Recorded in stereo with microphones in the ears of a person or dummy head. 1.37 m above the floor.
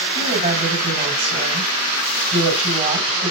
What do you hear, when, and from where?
0.1 s a woman speaking: 25° right (ahead or behind), 7.5 m